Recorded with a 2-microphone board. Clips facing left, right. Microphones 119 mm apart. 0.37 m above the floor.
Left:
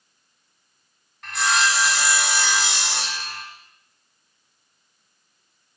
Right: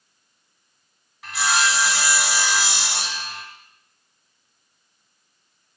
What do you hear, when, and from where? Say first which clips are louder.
1.2 s sawing: even; 5° right (ahead or behind), 1.4 m